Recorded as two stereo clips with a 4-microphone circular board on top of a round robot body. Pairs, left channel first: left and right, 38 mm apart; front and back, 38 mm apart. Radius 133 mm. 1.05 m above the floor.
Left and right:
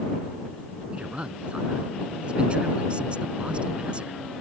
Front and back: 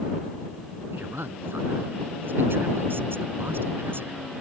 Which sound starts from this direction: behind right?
A man speaking, at 0.9 s.